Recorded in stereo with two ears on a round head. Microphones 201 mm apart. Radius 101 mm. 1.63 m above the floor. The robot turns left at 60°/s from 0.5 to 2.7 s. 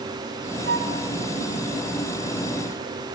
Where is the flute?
50° right (ahead or behind), 1.2 m; by 1.0 s 55° right (ahead or behind), 1.2 m.